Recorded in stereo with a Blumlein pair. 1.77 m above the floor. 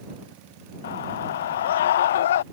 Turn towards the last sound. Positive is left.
turn(degrees=60)